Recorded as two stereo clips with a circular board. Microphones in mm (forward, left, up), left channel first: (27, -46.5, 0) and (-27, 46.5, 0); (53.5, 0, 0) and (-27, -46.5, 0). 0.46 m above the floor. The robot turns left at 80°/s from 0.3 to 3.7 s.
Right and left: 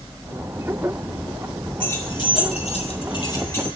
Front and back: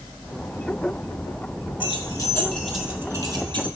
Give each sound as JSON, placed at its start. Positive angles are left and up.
{"t": 1.8, "sound": "keys jangling", "azimuth_deg": 15, "distance_m": 3.5}